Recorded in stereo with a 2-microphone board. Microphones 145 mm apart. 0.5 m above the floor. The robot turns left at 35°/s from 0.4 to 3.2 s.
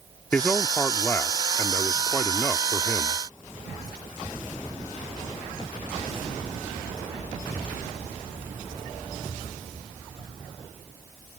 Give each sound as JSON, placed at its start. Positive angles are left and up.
{"t": 0.3, "sound": "a man speaking", "side_deg": 10}